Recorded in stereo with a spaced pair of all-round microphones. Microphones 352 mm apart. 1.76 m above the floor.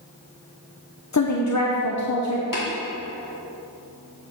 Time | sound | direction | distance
1.1 | a woman speaking | 50° left (ahead or behind) | 0.7 m
2.5 | tapping | 65° left (ahead or behind) | 2.0 m